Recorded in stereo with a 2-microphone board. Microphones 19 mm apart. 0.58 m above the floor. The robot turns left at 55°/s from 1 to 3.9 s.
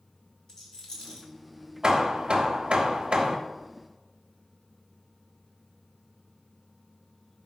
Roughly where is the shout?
No shout in this recording.